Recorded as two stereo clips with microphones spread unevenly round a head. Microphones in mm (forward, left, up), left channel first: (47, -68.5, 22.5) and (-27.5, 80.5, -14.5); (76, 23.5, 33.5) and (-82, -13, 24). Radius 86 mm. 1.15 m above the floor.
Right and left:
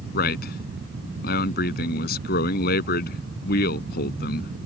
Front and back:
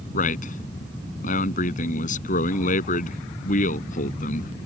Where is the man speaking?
30° right.